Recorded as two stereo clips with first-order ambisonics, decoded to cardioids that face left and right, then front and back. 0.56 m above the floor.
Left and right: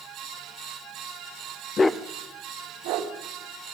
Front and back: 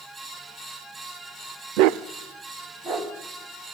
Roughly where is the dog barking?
Behind left.